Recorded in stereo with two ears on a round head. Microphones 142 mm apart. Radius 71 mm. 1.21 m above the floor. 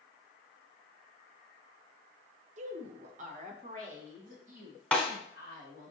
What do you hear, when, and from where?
2.6 s a woman speaking: 45° right (ahead or behind), 0.5 m
4.9 s a snare drum: 5° left (ahead or behind), 1.2 m